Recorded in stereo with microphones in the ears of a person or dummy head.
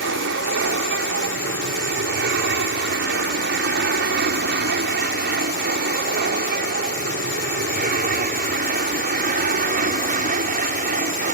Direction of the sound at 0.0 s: 60° right (ahead or behind).